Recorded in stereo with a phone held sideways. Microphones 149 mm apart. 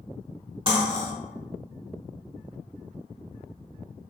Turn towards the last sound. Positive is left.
turn(degrees=-35)  # may be behind; listen again after turning